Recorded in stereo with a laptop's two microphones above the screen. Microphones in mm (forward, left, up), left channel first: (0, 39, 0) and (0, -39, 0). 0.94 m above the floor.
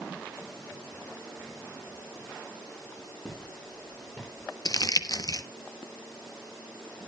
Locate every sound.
3.2 s footsteps: 10° left (ahead or behind), 9.5 m; by 4.5 s centre (ahead or behind), 9 m
4.7 s crumpling: 55° left (ahead or behind), 0.9 m